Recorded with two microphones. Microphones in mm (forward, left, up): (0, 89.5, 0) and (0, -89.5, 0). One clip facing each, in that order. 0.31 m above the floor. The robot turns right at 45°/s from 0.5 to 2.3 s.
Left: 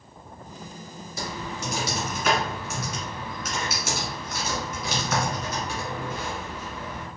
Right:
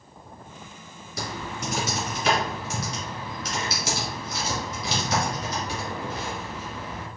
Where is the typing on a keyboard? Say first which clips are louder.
Even; 70° right (ahead or behind), 1.8 m; by 7.1 s 30° right (ahead or behind), 1.8 m.